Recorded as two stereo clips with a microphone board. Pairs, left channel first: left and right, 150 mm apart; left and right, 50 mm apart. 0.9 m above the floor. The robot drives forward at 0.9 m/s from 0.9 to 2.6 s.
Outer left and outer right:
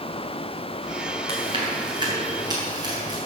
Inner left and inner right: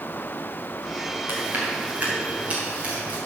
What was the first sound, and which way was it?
Chewing, 40° right (ahead or behind).